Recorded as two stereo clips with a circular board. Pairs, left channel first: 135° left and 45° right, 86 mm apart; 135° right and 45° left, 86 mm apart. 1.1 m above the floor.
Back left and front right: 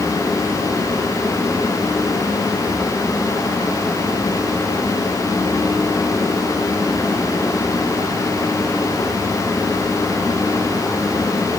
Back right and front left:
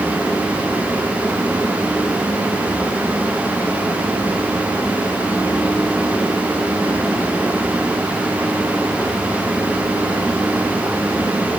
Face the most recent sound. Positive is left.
No sound to turn to.